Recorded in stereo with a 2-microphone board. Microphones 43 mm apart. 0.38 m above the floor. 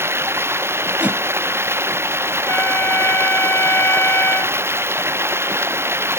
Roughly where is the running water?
Right.